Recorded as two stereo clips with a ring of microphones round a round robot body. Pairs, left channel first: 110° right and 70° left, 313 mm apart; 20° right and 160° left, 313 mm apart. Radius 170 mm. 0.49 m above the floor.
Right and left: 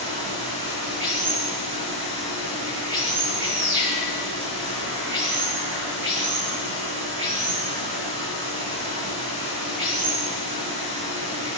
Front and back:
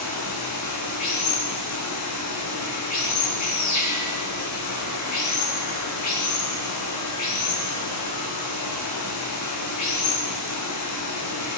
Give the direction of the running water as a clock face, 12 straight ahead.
12 o'clock.